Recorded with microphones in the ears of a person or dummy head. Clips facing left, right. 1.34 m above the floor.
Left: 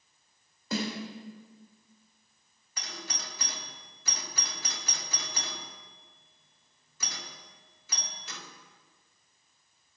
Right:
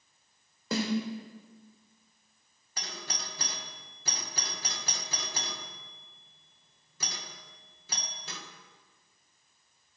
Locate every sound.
0.7 s a snare drum: 70° right (ahead or behind), 3 m
2.8 s a doorbell: 30° right (ahead or behind), 1.4 m